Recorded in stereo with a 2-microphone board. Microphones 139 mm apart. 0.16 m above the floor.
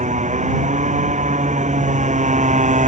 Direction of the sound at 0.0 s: 55° right (ahead or behind).